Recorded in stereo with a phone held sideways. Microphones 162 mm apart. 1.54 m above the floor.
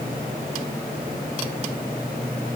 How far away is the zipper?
No zipper in this recording.